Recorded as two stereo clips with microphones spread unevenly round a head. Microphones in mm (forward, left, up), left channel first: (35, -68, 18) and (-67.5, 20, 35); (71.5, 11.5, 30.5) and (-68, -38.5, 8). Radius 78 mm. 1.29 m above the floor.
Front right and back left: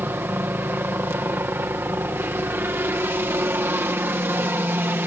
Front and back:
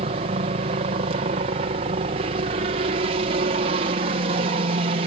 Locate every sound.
0.0 s a helicopter: 150° right